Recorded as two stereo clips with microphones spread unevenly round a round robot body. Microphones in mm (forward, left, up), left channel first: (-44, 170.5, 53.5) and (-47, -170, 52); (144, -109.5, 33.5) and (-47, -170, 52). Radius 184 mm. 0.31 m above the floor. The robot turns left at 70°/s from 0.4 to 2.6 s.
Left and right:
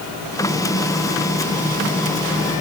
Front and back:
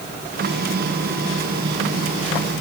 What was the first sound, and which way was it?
Only background noise.